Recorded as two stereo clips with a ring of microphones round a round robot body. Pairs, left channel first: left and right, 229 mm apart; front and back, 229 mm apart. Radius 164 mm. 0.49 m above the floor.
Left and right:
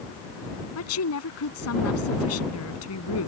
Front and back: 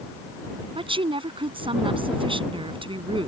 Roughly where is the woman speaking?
Behind left.